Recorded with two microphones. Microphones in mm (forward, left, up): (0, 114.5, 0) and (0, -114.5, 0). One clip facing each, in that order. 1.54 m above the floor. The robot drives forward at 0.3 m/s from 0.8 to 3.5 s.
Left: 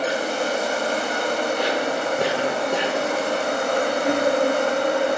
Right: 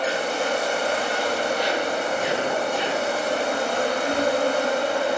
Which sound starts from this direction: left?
An insect, at 0.0 s.